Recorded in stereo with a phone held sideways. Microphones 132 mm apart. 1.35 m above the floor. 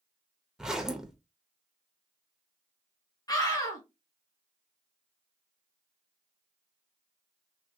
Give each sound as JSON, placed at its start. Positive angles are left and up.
{"t": 0.6, "sound": "a zipper", "side_deg": -5, "distance_m": 0.6}
{"t": 3.3, "sound": "a scream", "side_deg": 30, "distance_m": 1.5}